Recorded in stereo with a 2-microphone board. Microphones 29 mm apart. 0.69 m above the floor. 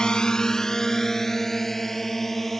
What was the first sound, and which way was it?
A drone, 30° left (ahead or behind).